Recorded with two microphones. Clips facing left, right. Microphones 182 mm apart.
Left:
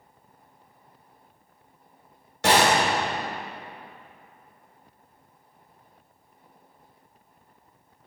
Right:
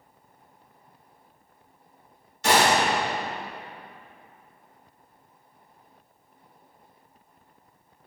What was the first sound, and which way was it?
A gunshot, 75° left (ahead or behind).